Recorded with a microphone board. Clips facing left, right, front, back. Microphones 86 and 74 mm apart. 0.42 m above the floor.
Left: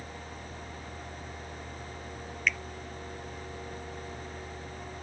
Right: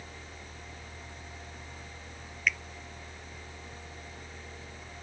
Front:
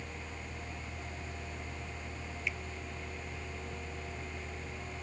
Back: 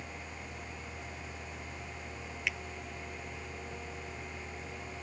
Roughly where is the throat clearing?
No throat clearing in this recording.